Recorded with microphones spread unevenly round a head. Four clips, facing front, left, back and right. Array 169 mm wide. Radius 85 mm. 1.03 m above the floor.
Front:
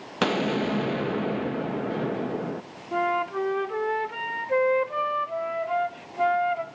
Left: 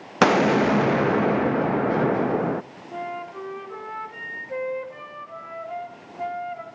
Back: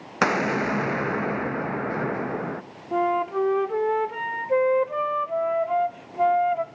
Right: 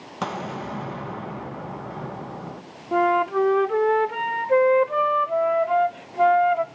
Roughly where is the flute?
Right.